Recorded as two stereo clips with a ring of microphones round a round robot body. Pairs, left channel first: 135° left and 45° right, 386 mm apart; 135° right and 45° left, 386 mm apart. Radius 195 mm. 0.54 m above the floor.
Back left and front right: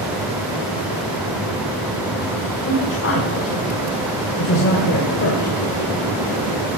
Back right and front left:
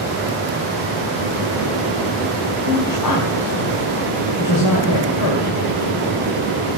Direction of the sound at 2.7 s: 170° right.